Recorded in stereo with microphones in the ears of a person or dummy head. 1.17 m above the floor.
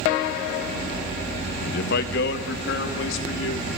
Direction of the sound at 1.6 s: 55° left (ahead or behind).